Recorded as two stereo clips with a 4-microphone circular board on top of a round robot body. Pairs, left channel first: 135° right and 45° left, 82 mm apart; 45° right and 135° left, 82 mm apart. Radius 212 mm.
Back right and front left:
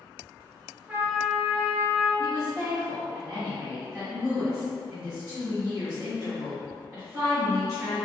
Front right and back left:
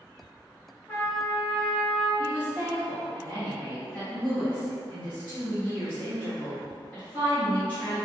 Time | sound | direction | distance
0.9 | a trumpet | 5° left | 1.3 m
2.2 | a woman speaking | 10° left | 1.6 m